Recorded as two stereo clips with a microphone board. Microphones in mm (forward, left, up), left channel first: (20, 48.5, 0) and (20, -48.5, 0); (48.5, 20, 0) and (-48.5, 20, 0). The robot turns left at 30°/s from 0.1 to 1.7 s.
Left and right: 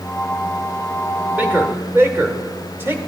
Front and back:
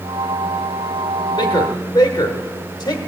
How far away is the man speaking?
About 1.1 m.